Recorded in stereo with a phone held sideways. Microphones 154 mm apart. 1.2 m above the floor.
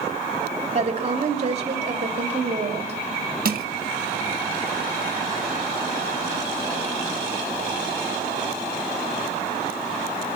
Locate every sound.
0.7 s a woman speaking: 40° right (ahead or behind), 2.5 m
3.5 s crushing: 65° right (ahead or behind), 1.3 m